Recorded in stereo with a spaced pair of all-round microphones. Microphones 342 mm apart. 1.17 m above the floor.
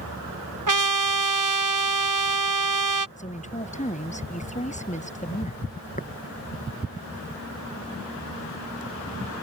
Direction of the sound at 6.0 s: 25° left (ahead or behind).